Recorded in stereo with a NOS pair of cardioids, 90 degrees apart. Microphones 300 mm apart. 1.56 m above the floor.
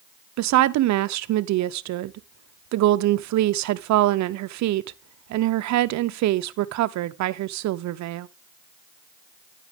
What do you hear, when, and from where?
0.4 s a woman speaking: 65° right, 0.6 m